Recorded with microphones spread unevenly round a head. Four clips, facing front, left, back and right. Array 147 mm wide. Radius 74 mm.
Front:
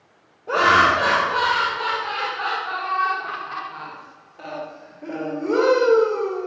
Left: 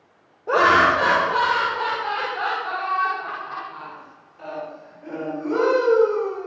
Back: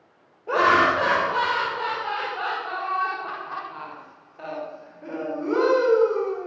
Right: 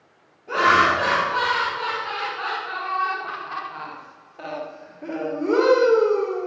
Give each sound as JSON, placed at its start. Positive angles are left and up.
{"t": 0.5, "sound": "laughter", "azimuth_deg": 105, "distance_m": 1.7}